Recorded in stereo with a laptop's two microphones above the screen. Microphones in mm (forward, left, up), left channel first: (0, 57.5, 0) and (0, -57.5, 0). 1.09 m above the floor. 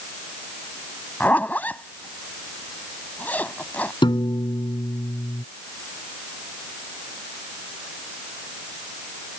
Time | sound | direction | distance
1.2 | a zipper | 15° left (ahead or behind) | ?
4.0 | a piano | 45° left (ahead or behind) | ?